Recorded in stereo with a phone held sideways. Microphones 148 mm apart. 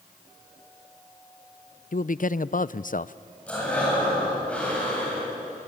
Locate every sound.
1.9 s a man speaking: 65° left (ahead or behind), 0.5 m
3.5 s breathing: 5° left (ahead or behind), 9.5 m